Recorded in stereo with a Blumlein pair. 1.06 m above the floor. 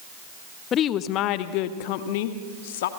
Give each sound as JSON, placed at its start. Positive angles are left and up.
{"t": 0.7, "sound": "a woman speaking", "azimuth_deg": 30, "distance_m": 1.0}